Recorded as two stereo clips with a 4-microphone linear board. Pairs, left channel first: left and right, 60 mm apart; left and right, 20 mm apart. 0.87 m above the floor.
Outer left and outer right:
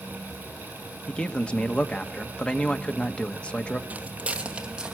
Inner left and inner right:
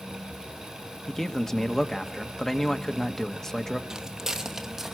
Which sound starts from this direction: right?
Footsteps, at 3.9 s.